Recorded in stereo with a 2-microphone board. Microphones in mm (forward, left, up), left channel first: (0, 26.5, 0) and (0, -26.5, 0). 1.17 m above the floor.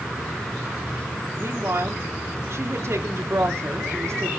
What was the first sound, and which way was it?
A woman speaking, 60° right (ahead or behind).